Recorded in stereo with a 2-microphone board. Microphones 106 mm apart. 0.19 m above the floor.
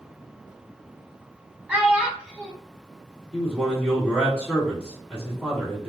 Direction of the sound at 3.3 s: 5° left (ahead or behind).